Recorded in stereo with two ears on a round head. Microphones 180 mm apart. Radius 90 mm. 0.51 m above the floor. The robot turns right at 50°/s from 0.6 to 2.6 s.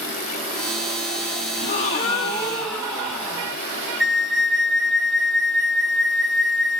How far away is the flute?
About 0.5 m.